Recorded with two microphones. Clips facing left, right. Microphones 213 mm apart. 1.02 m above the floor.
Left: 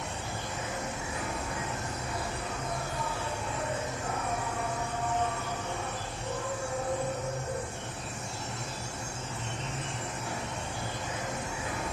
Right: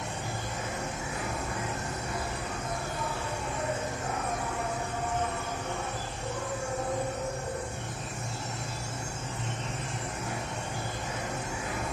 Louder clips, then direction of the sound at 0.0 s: Right 1 dB; 40° right (ahead or behind).